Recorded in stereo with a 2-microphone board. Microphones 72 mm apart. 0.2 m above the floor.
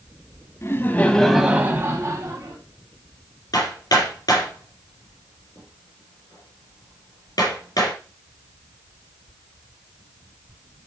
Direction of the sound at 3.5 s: 70° left (ahead or behind).